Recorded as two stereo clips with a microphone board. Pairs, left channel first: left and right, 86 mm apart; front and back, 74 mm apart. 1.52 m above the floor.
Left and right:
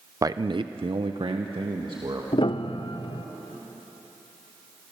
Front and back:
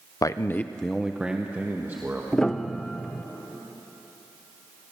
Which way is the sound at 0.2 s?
40° right.